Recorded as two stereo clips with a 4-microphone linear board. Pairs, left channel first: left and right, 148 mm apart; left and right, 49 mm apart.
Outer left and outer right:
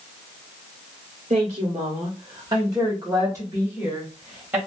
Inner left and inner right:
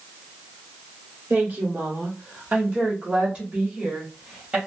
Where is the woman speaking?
40° right (ahead or behind), 1.0 m; by 4.6 s 15° right (ahead or behind), 1.8 m.